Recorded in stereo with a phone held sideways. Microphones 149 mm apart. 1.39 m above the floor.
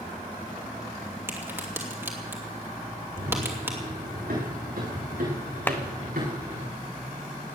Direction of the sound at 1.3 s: 15° right (ahead or behind).